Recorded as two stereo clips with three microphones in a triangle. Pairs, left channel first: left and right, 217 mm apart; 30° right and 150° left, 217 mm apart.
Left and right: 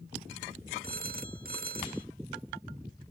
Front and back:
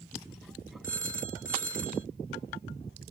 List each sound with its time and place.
0.8 s a phone ringing: 45° right